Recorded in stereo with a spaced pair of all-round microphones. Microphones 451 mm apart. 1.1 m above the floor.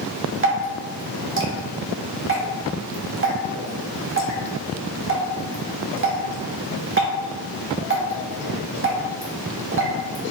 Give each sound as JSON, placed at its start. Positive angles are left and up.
{"t": 0.4, "sound": "dripping", "side_deg": -30, "distance_m": 0.9}